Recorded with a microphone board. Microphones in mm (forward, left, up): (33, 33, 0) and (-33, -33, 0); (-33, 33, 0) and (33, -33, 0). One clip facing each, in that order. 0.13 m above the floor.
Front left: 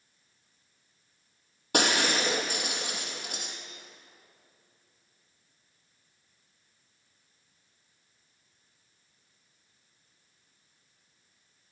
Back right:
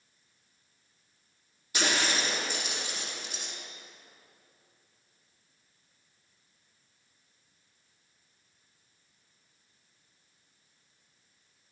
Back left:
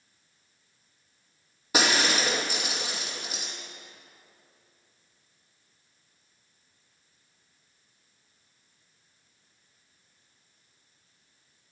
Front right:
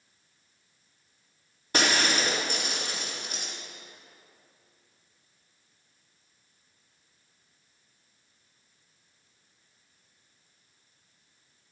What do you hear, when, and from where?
1.7 s breaking glass: 50° left, 3 m